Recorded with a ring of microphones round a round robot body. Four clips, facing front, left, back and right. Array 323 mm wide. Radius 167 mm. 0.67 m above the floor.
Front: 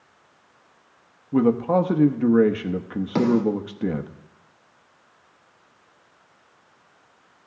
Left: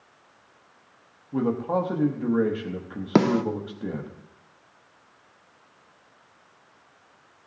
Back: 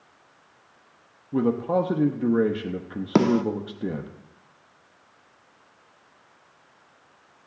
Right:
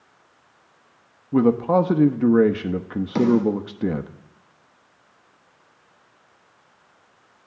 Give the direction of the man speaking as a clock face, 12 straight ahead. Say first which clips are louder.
Right 7 dB, front 4 dB; 2 o'clock.